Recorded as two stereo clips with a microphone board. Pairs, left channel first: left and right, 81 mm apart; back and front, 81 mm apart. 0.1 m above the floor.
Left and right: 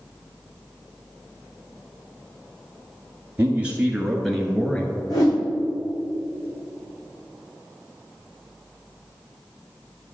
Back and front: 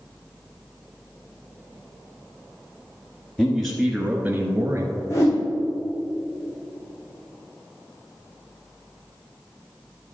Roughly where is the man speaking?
Behind right.